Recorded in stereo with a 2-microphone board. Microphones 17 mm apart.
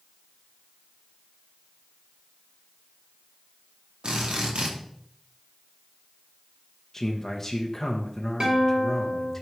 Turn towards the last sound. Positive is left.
turn(degrees=-60)  # may be behind; listen again after turning